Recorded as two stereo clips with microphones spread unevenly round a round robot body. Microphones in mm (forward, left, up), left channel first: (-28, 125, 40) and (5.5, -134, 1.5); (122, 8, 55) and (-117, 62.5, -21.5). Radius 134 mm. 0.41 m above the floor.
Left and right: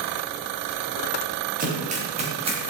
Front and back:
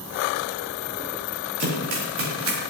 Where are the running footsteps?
145° right, 8 m; by 2.6 s 155° right, 8.5 m.